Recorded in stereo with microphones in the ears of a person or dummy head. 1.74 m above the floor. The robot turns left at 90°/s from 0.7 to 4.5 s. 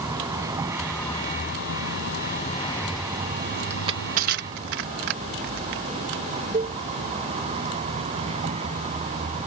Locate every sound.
0.0 s a vehicle: 160° right; by 9.5 s 145° right
3.7 s crushing: 15° right (ahead or behind); by 6.2 s 60° right (ahead or behind)
6.5 s a cowbell: 20° right (ahead or behind)